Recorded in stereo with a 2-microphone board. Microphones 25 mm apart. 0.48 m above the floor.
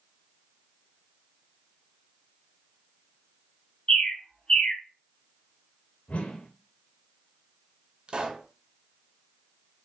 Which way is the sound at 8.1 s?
40° right (ahead or behind).